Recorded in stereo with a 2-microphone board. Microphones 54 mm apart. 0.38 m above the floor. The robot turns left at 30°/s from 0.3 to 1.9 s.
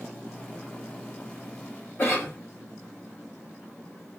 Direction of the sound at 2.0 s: 50° left (ahead or behind).